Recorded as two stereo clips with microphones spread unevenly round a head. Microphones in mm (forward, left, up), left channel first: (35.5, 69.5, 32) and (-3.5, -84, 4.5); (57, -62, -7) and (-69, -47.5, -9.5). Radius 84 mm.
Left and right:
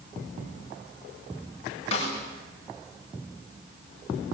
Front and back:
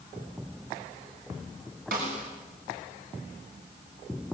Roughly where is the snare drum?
Behind left.